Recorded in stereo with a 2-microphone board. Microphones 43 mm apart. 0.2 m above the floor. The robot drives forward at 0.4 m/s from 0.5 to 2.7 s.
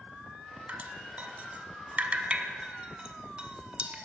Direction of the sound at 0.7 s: 35° right (ahead or behind).